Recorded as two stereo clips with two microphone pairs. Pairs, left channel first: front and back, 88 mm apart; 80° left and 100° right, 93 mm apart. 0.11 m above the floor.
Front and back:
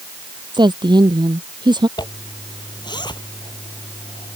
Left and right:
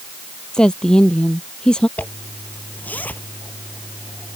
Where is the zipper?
10° left.